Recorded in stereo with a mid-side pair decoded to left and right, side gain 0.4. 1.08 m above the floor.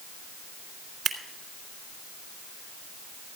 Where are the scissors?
70° right, 2.5 m.